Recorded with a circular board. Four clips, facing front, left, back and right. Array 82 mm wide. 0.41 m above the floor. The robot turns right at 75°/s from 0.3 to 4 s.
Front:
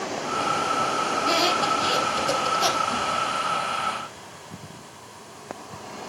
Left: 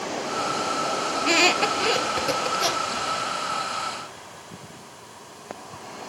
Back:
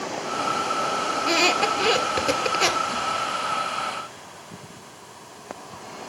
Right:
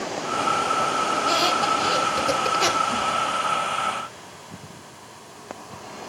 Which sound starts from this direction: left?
A squeak, at 1.2 s.